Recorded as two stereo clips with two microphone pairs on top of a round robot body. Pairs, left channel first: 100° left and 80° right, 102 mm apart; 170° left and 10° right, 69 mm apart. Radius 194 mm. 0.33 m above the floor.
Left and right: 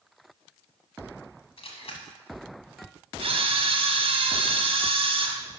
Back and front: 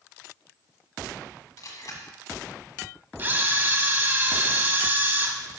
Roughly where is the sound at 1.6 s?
Behind left.